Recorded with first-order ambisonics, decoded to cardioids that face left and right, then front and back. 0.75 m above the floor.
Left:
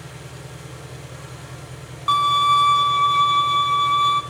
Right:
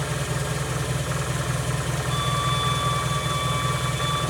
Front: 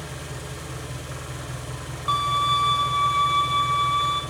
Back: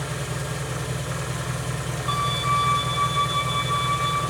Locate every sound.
0.0 s an engine running: 110° right, 3.5 m
2.1 s a violin: 80° left, 5 m